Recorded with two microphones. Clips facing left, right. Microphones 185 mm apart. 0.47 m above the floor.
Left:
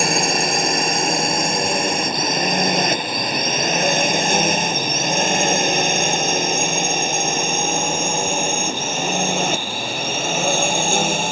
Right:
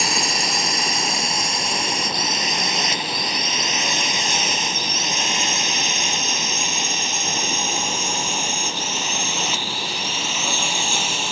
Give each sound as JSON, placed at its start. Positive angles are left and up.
{"t": 0.0, "sound": "a drone", "side_deg": 55}